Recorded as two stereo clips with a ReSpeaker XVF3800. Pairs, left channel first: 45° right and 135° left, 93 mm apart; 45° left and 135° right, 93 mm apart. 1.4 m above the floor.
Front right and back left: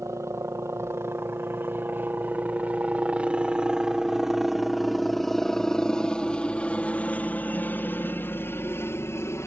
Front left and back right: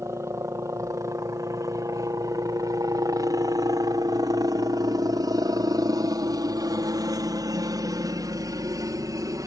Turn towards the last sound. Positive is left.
turn(degrees=-95)